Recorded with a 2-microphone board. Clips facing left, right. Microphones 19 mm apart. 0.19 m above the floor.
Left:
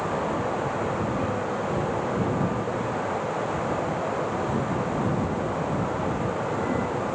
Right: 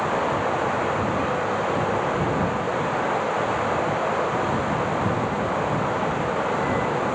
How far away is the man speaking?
I don't hear a man speaking.